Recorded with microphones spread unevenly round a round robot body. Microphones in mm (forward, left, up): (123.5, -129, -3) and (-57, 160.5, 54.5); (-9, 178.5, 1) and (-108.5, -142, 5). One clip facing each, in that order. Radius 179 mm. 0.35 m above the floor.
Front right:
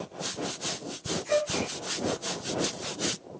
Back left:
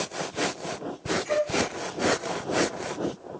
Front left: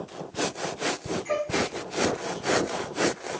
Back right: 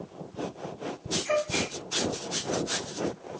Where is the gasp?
145° right, 2 m.